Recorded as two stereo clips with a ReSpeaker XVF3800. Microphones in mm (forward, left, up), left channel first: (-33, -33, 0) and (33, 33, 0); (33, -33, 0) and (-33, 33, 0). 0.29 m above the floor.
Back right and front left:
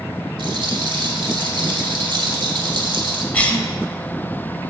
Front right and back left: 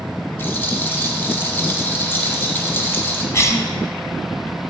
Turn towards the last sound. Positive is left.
turn(degrees=-70)